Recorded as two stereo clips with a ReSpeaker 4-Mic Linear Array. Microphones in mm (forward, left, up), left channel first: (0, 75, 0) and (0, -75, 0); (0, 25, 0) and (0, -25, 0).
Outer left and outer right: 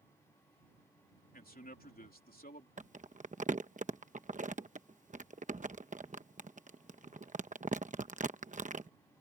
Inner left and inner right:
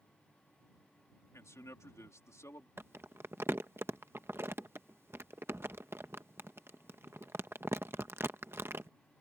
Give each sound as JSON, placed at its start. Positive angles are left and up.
{"t": 1.3, "sound": "a man speaking", "side_deg": 80}
{"t": 2.8, "sound": "crumpling", "side_deg": -55}